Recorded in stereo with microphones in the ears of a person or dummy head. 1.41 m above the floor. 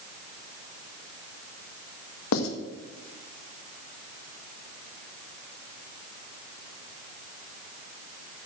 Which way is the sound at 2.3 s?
80° left.